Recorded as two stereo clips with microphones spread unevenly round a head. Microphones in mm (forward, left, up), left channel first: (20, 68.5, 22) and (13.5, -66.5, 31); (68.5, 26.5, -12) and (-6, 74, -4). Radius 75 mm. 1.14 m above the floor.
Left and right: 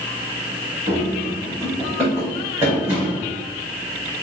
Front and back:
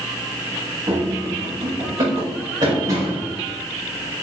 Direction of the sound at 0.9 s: 160° right.